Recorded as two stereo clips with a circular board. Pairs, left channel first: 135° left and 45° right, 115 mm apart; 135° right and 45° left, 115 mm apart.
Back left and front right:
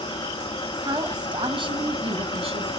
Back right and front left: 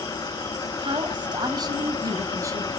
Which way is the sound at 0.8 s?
5° left.